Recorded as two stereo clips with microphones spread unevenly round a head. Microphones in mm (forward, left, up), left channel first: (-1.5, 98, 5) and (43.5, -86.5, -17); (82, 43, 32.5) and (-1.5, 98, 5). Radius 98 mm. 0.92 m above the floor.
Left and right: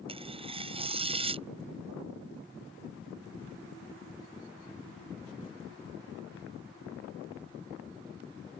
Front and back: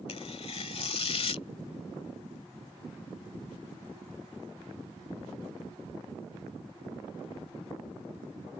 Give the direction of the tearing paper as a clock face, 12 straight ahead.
12 o'clock.